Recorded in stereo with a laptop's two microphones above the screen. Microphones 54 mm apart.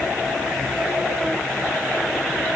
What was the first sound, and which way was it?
Only background noise.